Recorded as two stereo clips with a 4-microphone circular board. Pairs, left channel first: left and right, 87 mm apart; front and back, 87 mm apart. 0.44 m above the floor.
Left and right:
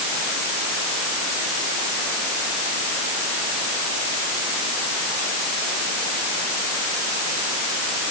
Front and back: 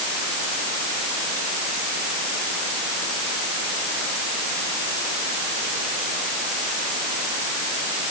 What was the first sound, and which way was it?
Only background noise.